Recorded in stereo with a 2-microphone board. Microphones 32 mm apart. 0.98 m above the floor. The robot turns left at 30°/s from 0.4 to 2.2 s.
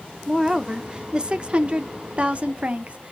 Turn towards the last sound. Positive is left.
turn(degrees=-75)